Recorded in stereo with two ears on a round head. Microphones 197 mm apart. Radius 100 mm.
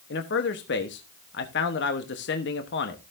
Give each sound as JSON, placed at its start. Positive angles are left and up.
{"t": 0.1, "sound": "a man speaking", "side_deg": 50, "distance_m": 1.1}